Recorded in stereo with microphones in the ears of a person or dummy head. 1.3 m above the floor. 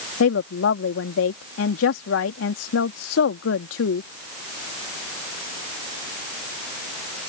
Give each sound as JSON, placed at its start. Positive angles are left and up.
{"t": 0.2, "sound": "a woman speaking", "side_deg": 80}